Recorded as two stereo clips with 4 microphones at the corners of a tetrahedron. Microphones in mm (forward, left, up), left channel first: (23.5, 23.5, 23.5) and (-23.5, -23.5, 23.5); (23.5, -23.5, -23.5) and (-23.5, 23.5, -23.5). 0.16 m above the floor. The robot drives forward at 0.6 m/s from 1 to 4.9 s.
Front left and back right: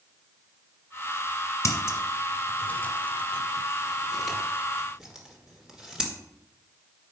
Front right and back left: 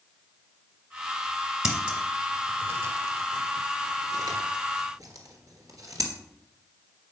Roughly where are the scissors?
Ahead left.